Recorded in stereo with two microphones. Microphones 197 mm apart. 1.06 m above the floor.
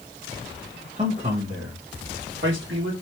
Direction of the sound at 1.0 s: 35° right (ahead or behind).